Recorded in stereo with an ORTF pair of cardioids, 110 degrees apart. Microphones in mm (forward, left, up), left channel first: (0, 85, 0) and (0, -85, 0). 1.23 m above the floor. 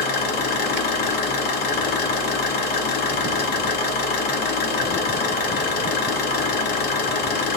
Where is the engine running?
70° left, 0.9 m.